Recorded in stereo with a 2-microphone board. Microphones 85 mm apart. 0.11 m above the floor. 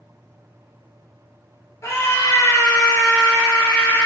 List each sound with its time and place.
1.8 s a scream: 35° left (ahead or behind), 2.0 m; by 4.1 s 25° left (ahead or behind), 1.5 m